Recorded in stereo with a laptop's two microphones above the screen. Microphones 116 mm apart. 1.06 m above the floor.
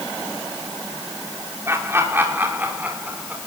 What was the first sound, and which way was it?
Laughter, 20° right (ahead or behind).